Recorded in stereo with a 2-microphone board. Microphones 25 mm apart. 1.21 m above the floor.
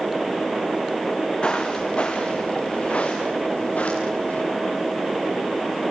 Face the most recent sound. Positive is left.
turn(degrees=70)  # may be behind; listen again after turning